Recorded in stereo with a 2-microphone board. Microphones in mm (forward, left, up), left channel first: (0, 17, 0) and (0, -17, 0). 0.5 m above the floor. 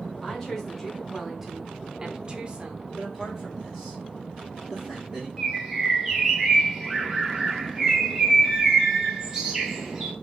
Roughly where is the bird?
Centre.